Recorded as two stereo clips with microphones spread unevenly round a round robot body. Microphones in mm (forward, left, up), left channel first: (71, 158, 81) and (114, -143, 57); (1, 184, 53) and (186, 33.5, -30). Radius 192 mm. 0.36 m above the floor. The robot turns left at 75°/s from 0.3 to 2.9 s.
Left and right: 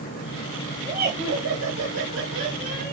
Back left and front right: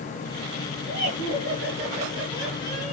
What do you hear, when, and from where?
0.9 s laughter: 20° right, 2.5 m; by 2.9 s 170° right, 2.5 m